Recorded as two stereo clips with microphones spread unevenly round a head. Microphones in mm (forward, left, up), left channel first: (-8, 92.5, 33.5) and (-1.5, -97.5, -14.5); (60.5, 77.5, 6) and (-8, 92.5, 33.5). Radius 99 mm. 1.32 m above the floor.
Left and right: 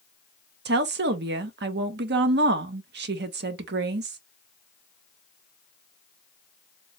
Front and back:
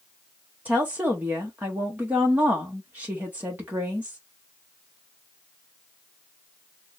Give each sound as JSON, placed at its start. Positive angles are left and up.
{"t": 0.7, "sound": "a woman speaking", "azimuth_deg": -110, "distance_m": 0.7}